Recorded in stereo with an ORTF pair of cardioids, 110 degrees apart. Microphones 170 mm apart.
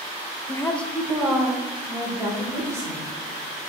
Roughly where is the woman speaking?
Ahead.